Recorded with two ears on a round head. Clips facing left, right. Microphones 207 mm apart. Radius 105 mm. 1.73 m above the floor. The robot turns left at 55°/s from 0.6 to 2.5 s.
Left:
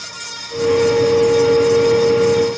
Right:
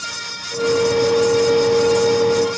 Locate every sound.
Only background noise.